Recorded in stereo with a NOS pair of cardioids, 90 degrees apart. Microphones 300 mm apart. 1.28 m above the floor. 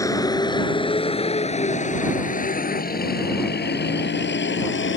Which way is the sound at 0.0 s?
10° left.